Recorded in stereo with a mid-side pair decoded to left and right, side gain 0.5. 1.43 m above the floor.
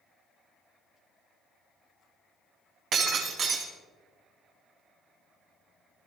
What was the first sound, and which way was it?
Breaking glass, 55° right.